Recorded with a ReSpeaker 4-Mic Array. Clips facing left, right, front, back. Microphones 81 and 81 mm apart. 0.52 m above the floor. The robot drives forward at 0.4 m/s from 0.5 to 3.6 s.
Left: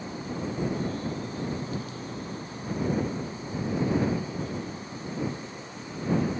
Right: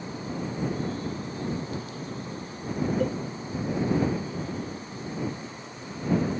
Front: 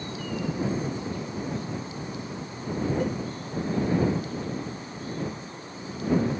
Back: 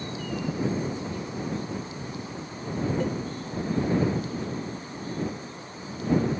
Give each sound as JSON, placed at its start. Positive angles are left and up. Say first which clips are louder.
{"t": 3.0, "sound": "a cowbell", "louder": "right 4 dB, even", "azimuth_deg": -85}